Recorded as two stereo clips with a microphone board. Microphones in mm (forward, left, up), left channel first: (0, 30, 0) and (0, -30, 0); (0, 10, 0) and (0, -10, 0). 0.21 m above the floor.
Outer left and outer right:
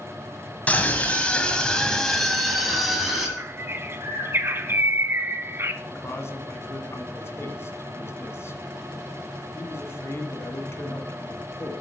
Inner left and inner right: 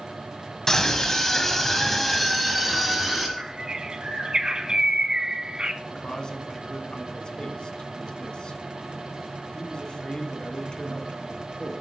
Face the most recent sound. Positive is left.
turn(degrees=45)  # may be behind; listen again after turning